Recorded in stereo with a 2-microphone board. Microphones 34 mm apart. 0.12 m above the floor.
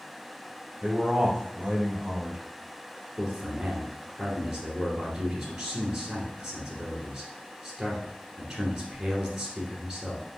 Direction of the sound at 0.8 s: 30° right (ahead or behind).